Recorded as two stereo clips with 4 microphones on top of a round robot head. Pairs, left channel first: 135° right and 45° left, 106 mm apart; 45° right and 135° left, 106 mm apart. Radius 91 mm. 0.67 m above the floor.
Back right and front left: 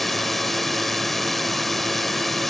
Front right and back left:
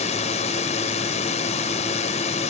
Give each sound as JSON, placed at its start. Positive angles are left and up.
{"t": 0.0, "sound": "a drone", "azimuth_deg": -45}